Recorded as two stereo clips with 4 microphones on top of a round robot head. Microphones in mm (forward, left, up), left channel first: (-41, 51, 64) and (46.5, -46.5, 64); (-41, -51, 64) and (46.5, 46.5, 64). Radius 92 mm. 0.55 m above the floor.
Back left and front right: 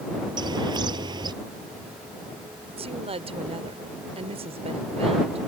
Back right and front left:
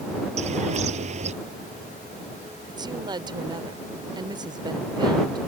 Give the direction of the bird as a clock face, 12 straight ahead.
12 o'clock.